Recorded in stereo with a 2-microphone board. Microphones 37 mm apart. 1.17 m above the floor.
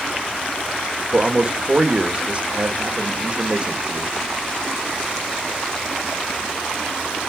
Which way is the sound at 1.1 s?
35° right (ahead or behind).